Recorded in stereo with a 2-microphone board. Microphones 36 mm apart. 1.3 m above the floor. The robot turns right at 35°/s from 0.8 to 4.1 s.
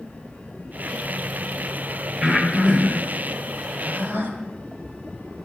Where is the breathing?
20° right (ahead or behind), 2 m; by 4.3 s 85° right, 2 m.